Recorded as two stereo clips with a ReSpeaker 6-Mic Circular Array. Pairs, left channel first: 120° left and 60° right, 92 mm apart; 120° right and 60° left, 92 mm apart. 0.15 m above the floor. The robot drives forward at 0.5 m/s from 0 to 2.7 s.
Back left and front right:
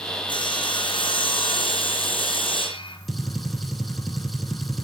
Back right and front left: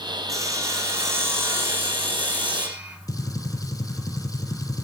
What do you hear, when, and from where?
0.3 s sawing: 110° left, 2.5 m; by 3.0 s 135° left, 3 m
3.1 s a gunshot: 150° right, 1.5 m